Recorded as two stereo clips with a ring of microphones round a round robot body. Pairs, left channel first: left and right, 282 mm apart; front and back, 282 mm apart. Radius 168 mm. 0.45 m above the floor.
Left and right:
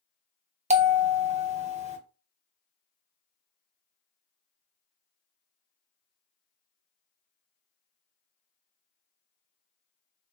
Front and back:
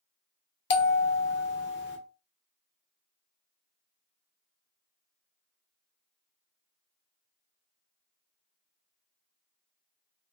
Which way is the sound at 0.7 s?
30° right.